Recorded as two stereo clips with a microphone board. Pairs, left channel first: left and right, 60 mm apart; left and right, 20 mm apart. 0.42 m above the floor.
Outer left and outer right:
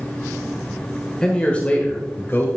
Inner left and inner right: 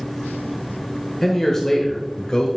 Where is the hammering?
No hammering in this recording.